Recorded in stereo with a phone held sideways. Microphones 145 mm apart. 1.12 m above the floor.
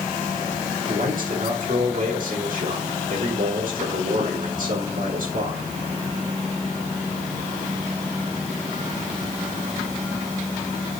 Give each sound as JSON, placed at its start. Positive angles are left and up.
{"t": 0.9, "sound": "a man speaking", "side_deg": -70, "distance_m": 5.0}